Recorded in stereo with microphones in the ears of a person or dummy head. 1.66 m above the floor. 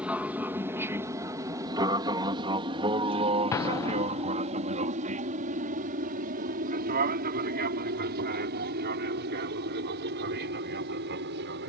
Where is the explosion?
15° left (ahead or behind).